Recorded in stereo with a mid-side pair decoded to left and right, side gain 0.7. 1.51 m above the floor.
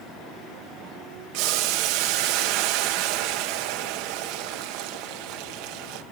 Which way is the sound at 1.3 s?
70° right.